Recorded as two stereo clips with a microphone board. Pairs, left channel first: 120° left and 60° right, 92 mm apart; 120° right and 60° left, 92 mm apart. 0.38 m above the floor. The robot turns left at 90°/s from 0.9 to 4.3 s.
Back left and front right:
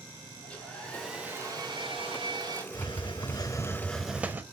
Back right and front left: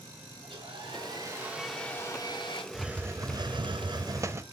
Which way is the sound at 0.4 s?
40° left.